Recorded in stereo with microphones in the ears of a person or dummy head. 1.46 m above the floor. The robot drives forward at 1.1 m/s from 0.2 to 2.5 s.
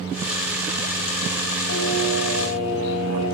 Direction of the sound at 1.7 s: 80° left.